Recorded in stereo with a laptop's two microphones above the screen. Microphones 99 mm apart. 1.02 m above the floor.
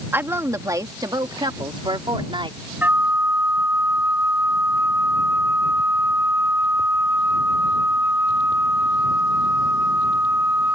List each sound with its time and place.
0.1 s a woman speaking: 25° right (ahead or behind); by 2.6 s 60° right (ahead or behind)
2.8 s a flute: 20° right (ahead or behind)